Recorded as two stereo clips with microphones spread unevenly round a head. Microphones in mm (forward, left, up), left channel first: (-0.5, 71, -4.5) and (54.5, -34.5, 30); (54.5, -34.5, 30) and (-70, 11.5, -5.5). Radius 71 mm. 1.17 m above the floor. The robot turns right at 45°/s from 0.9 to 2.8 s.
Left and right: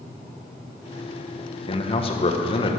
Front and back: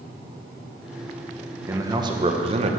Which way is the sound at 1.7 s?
100° left.